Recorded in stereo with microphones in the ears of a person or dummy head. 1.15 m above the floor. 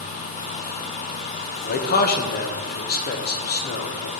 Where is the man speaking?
45° left (ahead or behind), 0.8 m.